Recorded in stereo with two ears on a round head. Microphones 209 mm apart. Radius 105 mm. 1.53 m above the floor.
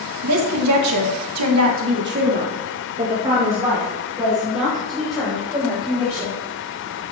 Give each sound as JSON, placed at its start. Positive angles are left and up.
{"t": 0.2, "sound": "a woman speaking", "side_deg": -70, "distance_m": 2.0}